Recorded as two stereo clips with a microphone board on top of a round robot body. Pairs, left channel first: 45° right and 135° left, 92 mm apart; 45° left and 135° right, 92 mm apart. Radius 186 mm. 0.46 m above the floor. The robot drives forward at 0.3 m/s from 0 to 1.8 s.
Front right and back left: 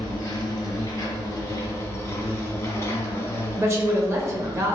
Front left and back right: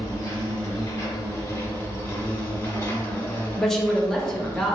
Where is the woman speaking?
130° left, 0.7 m.